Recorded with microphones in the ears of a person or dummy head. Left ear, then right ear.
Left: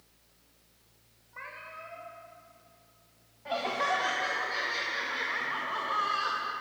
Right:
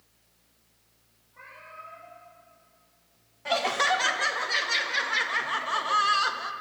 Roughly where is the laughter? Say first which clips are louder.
Right 5 dB; right.